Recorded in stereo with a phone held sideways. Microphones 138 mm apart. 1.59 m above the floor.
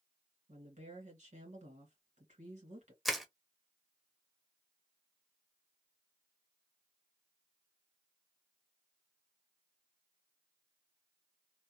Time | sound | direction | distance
0.5 | a woman speaking | 60° right (ahead or behind) | 2 m
3.0 | crushing | centre (ahead or behind) | 0.8 m